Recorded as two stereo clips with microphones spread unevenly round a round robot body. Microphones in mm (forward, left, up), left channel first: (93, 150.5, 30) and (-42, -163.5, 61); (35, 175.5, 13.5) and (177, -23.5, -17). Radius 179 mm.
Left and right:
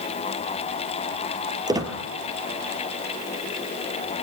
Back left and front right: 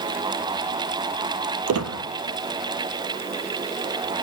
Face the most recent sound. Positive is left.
turn(degrees=-35)